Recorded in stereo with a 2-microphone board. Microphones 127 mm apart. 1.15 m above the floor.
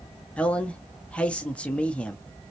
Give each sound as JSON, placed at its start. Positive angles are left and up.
{"t": 0.4, "sound": "a man speaking", "side_deg": 10, "distance_m": 0.6}